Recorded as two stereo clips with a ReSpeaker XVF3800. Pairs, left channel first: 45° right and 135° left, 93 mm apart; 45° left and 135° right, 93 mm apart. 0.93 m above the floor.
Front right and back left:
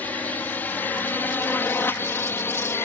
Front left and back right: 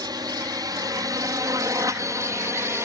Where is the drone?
110° right; by 2.9 s 95° right.